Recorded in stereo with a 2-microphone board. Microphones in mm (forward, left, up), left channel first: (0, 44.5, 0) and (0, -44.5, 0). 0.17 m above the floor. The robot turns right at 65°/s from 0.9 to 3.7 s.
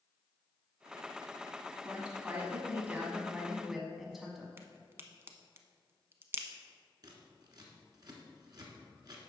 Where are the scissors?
50° right (ahead or behind), 1.4 m.